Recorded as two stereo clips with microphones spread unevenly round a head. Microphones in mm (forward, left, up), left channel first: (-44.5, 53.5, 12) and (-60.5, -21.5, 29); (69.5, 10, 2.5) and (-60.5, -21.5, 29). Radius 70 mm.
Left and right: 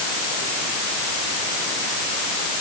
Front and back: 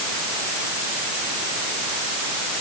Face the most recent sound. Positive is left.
No sound to turn to.